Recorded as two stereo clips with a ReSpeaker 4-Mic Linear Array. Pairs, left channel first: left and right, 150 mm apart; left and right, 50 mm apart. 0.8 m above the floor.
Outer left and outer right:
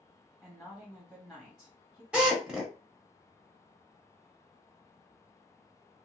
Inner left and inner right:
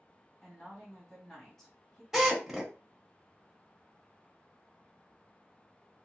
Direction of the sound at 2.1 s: 10° right (ahead or behind).